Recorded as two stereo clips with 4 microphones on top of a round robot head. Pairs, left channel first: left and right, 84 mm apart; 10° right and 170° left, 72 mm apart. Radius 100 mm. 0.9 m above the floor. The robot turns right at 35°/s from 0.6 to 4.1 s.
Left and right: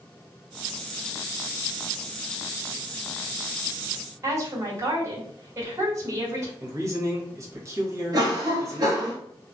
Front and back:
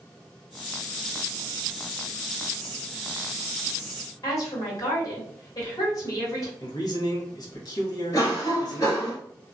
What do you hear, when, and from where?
4.2 s a woman speaking: 40° right, 1.9 m
6.6 s a man speaking: 40° right, 1.1 m
8.1 s a cough: 50° right, 1.7 m